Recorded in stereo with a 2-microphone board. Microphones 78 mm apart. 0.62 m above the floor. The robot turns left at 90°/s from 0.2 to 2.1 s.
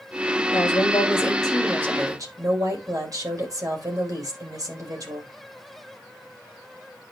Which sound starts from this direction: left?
A woman speaking, at 0.5 s.